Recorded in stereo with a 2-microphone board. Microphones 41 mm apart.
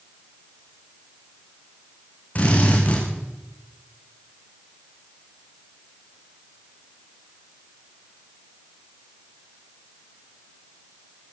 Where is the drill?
35° left (ahead or behind), 8 m.